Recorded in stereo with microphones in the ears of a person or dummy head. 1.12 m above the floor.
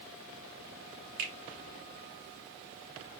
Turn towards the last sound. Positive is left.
turn(degrees=-45)  # may be behind; listen again after turning